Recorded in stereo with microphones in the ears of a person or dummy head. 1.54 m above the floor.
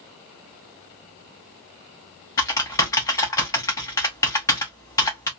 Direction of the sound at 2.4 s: 15° left (ahead or behind).